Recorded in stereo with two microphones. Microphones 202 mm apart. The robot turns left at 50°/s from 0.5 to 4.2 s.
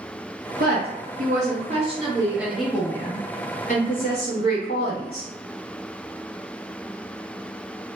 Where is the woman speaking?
80° right, 0.7 m; by 5.3 s 100° left, 0.7 m.